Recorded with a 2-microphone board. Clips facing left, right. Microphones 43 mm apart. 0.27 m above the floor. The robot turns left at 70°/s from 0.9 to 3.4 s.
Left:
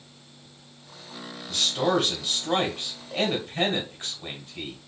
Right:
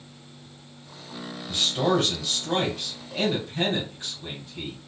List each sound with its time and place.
1.5 s a man speaking: 155° right, 2.0 m; by 4.8 s 70° left, 2.0 m